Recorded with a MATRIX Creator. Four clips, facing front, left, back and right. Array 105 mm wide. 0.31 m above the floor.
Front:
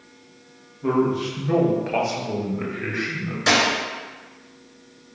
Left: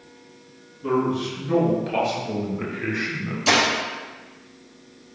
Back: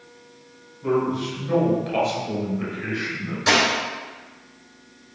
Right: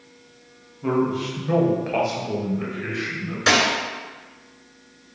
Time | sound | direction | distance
0.8 | a man speaking | 75° right | 1.3 m
3.5 | a dropped coin | 80° right | 1.9 m